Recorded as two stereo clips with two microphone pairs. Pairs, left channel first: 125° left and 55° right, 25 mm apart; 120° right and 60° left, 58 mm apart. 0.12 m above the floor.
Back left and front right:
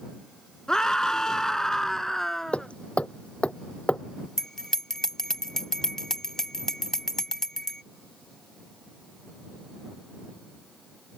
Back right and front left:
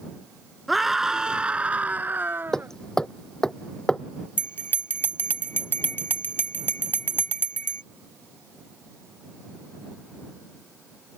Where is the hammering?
160° left.